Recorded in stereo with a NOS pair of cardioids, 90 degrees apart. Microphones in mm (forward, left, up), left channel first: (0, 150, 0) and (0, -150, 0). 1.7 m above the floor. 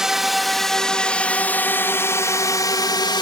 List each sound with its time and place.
0.0 s a drone: straight ahead; by 3.2 s 15° left